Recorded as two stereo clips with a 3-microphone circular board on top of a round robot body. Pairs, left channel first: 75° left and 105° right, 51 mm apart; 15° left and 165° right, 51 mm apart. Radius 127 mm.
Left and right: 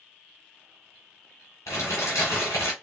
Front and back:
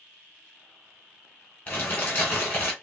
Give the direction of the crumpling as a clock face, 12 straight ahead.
10 o'clock.